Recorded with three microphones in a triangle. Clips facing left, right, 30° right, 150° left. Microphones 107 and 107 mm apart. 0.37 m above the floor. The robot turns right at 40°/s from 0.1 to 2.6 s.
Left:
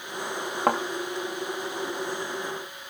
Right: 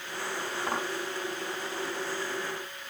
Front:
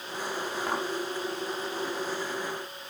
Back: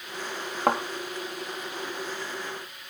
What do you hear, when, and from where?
0.7 s a thud: 115° left, 4 m; by 0.8 s 120° left, 4 m